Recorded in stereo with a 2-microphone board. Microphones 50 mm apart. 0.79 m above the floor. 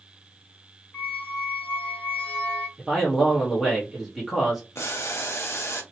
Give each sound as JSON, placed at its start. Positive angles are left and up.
{"t": 0.9, "sound": "a squeak", "side_deg": 35, "distance_m": 1.9}
{"t": 2.8, "sound": "a man speaking", "side_deg": 0, "distance_m": 1.0}
{"t": 4.8, "sound": "boiling", "side_deg": 65, "distance_m": 0.8}